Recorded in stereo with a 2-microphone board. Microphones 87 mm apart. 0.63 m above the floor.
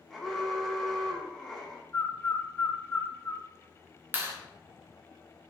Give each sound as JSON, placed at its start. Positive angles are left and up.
{"t": 0.1, "sound": "an alarm", "side_deg": 5, "distance_m": 0.8}
{"t": 1.9, "sound": "a bird", "side_deg": 25, "distance_m": 0.6}
{"t": 4.1, "sound": "a clap", "side_deg": -25, "distance_m": 1.1}